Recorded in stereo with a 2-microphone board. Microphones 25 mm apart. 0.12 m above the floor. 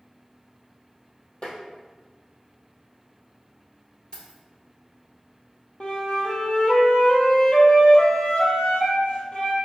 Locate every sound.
1.4 s tapping: 50° left (ahead or behind), 1.1 m
4.1 s keys jangling: 35° left (ahead or behind), 1.5 m
5.8 s a flute: 45° left (ahead or behind), 0.8 m